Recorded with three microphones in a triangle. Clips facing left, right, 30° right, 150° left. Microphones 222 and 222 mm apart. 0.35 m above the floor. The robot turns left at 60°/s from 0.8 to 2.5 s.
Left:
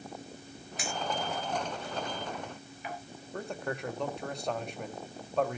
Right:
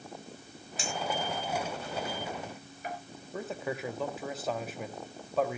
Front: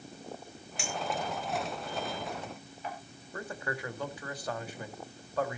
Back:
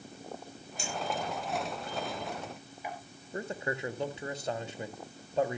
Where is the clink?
30° right, 5 m; by 3.0 s 130° right, 5 m.